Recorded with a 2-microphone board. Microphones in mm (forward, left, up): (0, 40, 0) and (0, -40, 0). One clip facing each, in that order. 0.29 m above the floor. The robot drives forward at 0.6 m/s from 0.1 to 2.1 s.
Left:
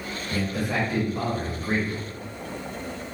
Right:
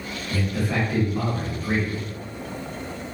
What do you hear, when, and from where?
0.3 s a man speaking: 15° left (ahead or behind), 1.4 m